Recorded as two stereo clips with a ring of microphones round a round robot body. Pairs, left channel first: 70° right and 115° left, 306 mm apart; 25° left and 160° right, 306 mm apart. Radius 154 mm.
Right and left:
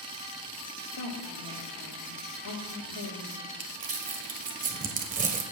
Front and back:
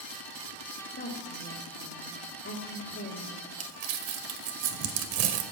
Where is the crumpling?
Straight behind, 1.6 m.